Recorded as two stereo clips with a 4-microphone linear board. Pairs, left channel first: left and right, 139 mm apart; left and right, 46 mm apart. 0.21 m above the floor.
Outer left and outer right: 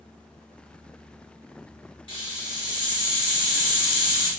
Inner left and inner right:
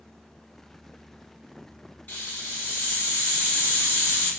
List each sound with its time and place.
2.1 s a hiss: 40° left (ahead or behind), 1.6 m